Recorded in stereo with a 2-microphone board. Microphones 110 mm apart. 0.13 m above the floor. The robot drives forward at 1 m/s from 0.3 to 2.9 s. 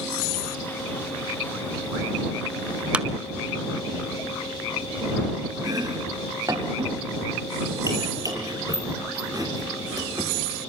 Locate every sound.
2.9 s a clap: 10° right (ahead or behind), 1.2 m
5.6 s chopping: 30° right (ahead or behind), 4 m